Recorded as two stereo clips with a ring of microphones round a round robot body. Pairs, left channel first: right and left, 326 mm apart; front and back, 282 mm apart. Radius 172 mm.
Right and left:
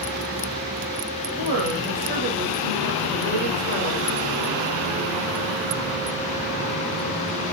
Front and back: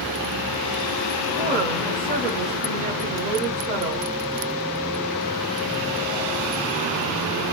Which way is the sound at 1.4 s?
125° left.